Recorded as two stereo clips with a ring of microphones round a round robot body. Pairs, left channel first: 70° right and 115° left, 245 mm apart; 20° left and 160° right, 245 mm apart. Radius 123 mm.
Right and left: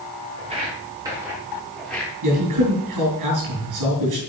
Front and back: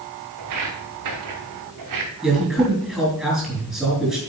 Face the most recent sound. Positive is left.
turn(degrees=115)